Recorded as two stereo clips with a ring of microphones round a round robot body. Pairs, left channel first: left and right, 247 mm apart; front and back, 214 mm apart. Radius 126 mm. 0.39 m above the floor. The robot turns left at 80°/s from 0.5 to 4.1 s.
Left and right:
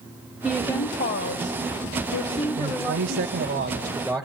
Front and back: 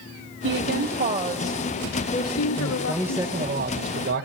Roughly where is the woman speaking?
Behind.